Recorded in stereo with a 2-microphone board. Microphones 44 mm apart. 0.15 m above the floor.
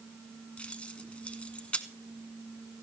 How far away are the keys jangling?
About 0.9 m.